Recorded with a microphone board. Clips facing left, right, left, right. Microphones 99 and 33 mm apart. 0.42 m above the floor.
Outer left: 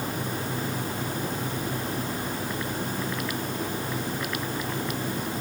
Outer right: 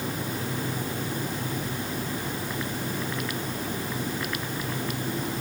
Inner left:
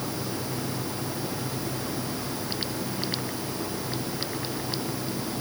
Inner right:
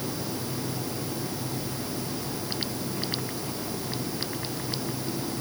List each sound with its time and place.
Only background noise.